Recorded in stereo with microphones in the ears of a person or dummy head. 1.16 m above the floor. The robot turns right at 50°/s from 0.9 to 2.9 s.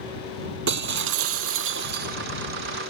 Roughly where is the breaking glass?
Right.